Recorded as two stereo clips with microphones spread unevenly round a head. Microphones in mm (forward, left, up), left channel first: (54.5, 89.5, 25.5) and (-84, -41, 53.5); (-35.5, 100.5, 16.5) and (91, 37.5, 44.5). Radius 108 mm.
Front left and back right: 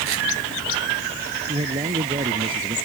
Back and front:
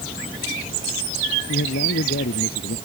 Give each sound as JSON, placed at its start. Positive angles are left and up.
{"t": 1.5, "sound": "a man speaking", "azimuth_deg": 160}